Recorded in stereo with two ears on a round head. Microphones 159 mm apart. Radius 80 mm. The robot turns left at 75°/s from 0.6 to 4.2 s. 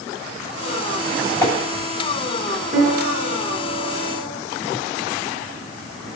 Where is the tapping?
15° left (ahead or behind), 6.5 m; by 1.5 s 25° left (ahead or behind), 6.5 m.